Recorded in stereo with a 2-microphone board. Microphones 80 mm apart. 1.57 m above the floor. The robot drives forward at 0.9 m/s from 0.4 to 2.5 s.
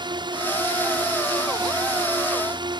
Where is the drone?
75° right (ahead or behind).